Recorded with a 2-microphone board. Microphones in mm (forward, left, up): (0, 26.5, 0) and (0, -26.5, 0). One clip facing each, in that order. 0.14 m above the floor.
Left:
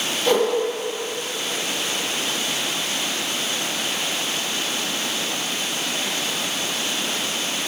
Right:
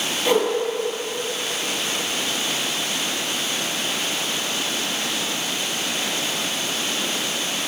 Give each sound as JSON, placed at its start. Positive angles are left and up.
{"t": 0.2, "sound": "a whoosh", "side_deg": -15, "distance_m": 2.0}